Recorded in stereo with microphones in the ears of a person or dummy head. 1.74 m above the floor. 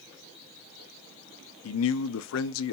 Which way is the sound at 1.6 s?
75° left (ahead or behind).